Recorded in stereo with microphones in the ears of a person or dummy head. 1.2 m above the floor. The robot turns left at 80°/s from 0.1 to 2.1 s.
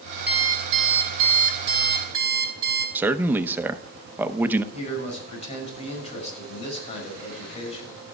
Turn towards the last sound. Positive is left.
turn(degrees=35)  # may be behind; listen again after turning